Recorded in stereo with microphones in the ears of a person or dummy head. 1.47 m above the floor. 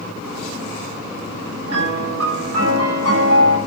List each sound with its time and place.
1.7 s a piano: 90° right, 7 m